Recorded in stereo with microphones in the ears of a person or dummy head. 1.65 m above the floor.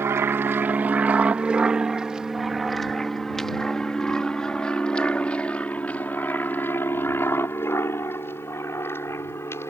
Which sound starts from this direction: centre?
An aircraft, at 0.0 s.